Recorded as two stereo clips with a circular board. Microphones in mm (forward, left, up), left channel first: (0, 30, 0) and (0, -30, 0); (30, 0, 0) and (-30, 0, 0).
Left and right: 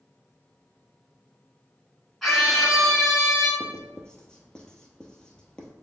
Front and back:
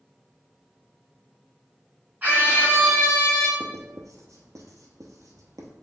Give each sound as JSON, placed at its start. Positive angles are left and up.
{"t": 2.2, "sound": "a scream", "azimuth_deg": 175, "distance_m": 1.6}
{"t": 3.6, "sound": "writing", "azimuth_deg": 165, "distance_m": 0.8}